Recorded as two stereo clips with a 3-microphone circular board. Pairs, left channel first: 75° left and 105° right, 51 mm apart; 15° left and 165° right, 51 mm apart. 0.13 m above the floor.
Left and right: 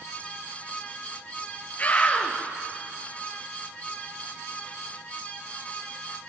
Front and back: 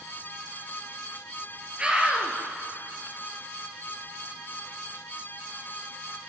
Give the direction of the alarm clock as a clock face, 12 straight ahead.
No alarm clock in this recording.